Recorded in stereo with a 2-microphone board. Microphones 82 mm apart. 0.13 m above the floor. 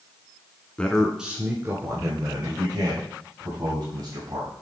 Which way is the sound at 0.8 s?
15° left (ahead or behind).